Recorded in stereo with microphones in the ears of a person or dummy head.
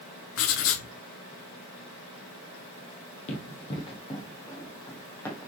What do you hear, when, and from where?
0.4 s writing: 75° left (ahead or behind), 1.6 m
3.3 s running footsteps: 35° left (ahead or behind), 2.5 m; by 5.5 s 10° left (ahead or behind), 2.5 m